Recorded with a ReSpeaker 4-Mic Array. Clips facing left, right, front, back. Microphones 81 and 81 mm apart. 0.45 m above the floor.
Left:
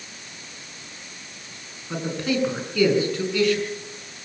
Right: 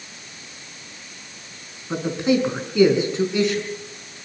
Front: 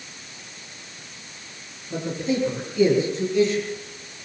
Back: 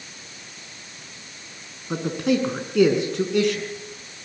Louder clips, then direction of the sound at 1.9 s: Right 5 dB, back 3 dB; 160° right.